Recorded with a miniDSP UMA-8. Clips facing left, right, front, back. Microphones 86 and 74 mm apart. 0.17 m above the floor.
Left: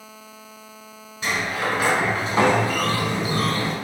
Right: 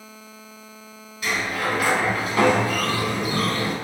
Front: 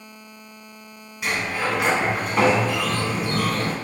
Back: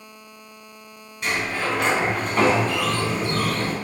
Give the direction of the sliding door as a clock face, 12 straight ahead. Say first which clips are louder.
Even, even; 9 o'clock.